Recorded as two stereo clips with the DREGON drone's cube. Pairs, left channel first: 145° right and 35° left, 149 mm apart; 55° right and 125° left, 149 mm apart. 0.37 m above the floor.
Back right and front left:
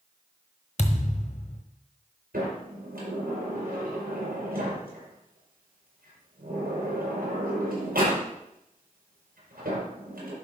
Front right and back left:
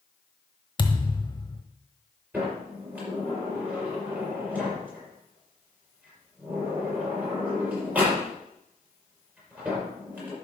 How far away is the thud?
About 1.1 m.